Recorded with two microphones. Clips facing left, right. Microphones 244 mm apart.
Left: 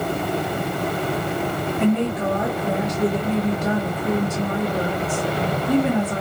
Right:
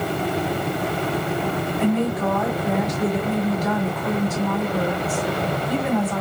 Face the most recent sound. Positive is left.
turn(degrees=30)  # may be behind; listen again after turning